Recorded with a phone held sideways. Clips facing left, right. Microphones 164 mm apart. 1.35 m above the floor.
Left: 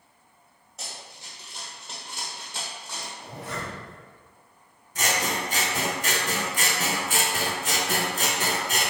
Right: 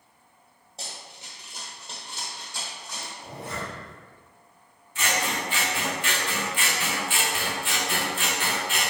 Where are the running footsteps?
30° right (ahead or behind), 1.6 m; by 3.1 s 35° left (ahead or behind), 2.0 m.